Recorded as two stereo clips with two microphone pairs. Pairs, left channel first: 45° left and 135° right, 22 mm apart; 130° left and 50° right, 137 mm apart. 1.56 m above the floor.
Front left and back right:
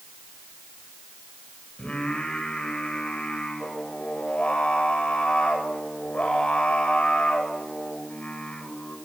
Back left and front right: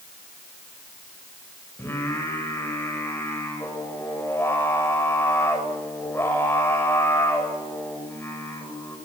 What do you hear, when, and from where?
1.8 s singing: 60° left, 7.5 m